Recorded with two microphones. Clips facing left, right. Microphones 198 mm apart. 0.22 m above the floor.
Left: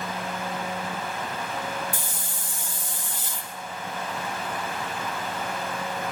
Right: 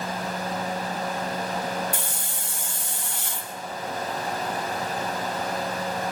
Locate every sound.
1.9 s a hiss: 70° right (ahead or behind), 1.2 m